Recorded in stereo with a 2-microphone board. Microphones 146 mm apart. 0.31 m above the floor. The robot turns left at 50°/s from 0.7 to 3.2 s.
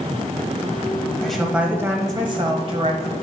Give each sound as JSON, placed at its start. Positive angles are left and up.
{"t": 1.2, "sound": "a woman speaking", "azimuth_deg": 5, "distance_m": 1.3}